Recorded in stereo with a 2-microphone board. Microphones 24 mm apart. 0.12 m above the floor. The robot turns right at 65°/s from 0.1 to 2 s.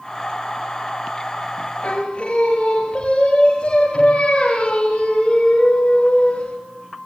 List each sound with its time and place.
1.8 s singing: 50° left (ahead or behind), 8 m; by 6.6 s 35° left (ahead or behind), 8 m